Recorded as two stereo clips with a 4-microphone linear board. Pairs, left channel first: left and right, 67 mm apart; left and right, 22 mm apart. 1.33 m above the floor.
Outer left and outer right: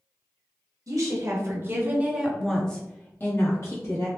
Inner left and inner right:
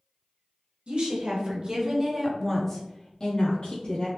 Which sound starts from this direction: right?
A woman speaking, at 0.9 s.